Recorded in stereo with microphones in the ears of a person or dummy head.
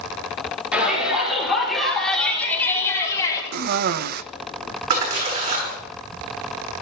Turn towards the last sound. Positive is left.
turn(degrees=-50)  # may be behind; listen again after turning